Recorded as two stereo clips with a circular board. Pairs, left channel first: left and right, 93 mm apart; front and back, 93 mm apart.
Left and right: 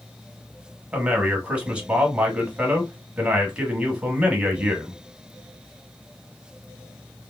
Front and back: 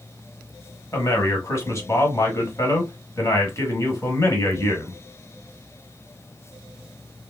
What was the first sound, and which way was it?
A man speaking, 25° right.